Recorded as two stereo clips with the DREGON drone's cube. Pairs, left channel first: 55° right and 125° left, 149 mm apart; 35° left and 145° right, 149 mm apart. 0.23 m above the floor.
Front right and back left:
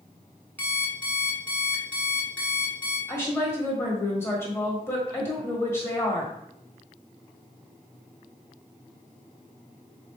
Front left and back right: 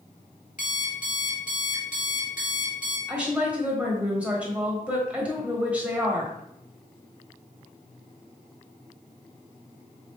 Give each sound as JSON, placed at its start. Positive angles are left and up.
{"t": 0.6, "sound": "an alarm clock", "azimuth_deg": 20, "distance_m": 1.5}
{"t": 3.1, "sound": "a woman speaking", "azimuth_deg": -80, "distance_m": 1.3}